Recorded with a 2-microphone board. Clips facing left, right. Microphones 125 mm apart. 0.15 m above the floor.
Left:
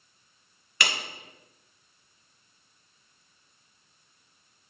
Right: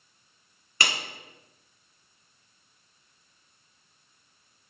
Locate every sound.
0.8 s a clap: 35° right (ahead or behind), 1.3 m